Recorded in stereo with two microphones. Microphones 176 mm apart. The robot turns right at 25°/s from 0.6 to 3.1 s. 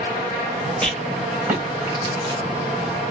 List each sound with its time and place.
0.8 s a rattle: 5° left (ahead or behind), 3 m; by 3.1 s 45° right (ahead or behind), 3 m